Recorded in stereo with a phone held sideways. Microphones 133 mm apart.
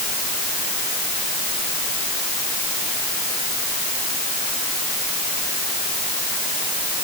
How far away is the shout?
I don't hear a shout.